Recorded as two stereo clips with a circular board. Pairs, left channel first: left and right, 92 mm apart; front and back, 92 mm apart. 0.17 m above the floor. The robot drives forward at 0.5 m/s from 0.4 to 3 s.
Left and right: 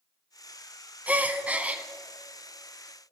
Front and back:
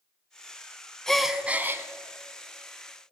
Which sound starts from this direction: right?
A gasp, at 1.1 s.